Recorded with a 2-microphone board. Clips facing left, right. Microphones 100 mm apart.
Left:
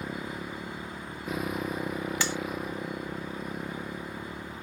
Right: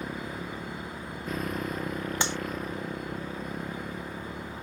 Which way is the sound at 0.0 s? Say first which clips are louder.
Even; 5° left (ahead or behind).